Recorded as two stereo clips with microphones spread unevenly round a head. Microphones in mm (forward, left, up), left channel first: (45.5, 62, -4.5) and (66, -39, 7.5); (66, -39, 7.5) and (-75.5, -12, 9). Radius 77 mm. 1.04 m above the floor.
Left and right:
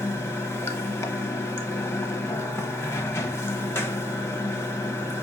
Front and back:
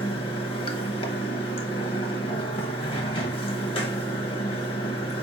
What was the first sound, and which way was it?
Running water, 40° left.